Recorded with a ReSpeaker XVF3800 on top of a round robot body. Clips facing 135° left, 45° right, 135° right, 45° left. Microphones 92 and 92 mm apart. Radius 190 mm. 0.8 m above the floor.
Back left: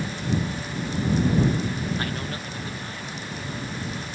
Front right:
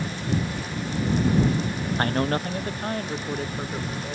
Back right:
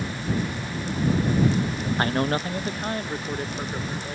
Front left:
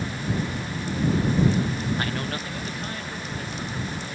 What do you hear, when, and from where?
2.0 s a man speaking: 85° right; by 4.2 s 80° right